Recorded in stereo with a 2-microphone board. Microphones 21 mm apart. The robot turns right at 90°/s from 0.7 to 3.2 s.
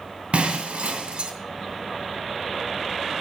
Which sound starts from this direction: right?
Breaking glass, at 0.3 s.